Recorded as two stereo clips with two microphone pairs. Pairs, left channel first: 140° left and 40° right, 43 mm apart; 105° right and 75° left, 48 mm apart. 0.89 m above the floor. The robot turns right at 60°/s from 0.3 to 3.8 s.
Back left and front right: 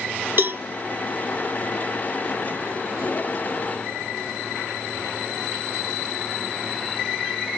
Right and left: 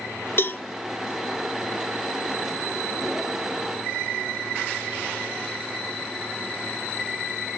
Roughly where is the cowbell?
Right.